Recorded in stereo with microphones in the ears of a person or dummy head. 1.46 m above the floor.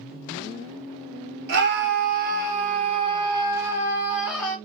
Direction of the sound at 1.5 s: 60° right (ahead or behind).